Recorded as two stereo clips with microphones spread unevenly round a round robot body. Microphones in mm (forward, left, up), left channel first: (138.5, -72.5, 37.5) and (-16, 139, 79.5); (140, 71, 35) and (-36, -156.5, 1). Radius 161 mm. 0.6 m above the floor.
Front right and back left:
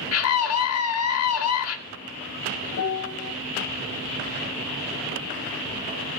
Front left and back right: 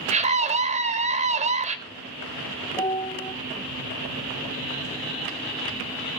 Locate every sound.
0.1 s a scream: 65° right, 3 m
2.7 s a piano: 20° right, 1.4 m